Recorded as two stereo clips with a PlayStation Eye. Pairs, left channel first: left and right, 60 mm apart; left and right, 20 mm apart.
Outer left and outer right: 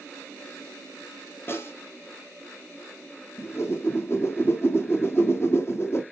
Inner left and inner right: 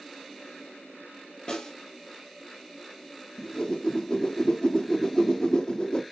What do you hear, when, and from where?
1.5 s a snare drum: 40° left (ahead or behind), 2.5 m
3.4 s a whoosh: 45° left (ahead or behind), 1.6 m